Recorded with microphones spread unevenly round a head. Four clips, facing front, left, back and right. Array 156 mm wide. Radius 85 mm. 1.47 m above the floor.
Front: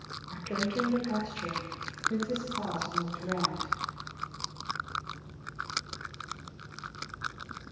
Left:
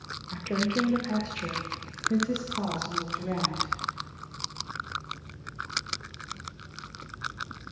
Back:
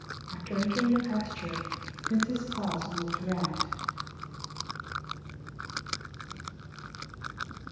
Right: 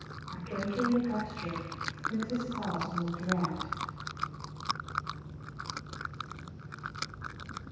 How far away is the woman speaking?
About 1.3 m.